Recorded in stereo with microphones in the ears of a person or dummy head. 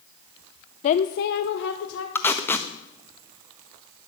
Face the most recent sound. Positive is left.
turn(degrees=15)  # may be behind; listen again after turning